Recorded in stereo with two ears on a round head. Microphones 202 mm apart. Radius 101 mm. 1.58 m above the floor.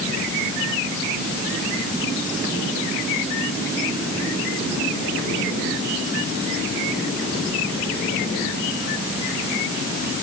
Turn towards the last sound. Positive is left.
No sound to turn to.